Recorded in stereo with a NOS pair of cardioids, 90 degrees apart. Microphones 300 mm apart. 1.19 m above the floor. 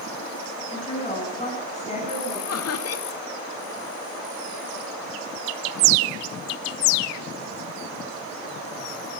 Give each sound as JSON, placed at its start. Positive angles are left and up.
{"t": 0.7, "sound": "a woman speaking", "azimuth_deg": 20, "distance_m": 9.5}
{"t": 2.5, "sound": "laughter", "azimuth_deg": 50, "distance_m": 2.5}